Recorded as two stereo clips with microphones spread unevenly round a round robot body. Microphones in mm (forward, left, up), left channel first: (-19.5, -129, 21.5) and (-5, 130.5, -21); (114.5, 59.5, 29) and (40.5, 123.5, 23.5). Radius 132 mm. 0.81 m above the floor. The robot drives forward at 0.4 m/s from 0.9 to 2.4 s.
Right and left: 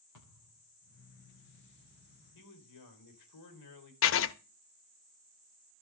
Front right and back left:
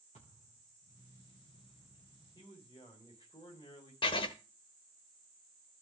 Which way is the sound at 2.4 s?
100° right.